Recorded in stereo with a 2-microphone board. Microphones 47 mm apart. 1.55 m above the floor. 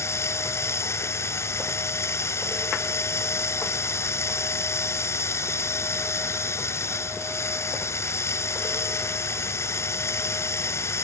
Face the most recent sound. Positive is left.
turn(degrees=80)